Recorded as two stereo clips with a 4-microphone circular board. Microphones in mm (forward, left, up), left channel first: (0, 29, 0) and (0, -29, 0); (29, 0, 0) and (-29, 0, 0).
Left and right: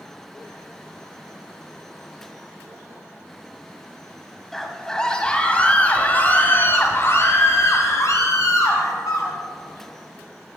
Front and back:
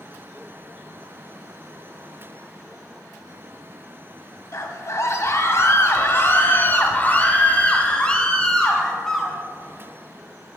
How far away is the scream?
About 2 m.